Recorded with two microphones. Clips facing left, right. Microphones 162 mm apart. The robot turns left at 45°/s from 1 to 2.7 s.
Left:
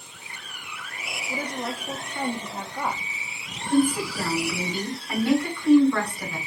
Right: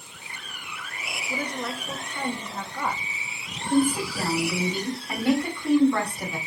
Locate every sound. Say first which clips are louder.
1.3 s a woman speaking: even; 25° left (ahead or behind), 0.7 m; by 3.0 s 15° left (ahead or behind), 0.7 m
3.7 s a woman speaking: left 1 dB; 20° right (ahead or behind), 1.8 m